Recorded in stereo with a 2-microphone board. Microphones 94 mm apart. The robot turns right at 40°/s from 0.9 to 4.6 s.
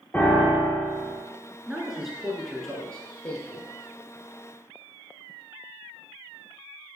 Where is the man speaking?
10° right (ahead or behind), 1.2 m; by 3.7 s 15° left (ahead or behind), 1.2 m.